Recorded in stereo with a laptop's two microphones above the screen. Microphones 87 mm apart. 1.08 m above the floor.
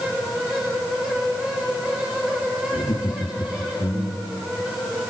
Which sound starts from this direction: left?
Laughter, at 2.7 s.